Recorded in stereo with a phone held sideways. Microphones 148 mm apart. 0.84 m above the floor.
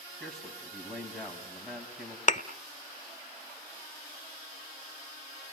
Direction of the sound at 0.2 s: 5° left (ahead or behind).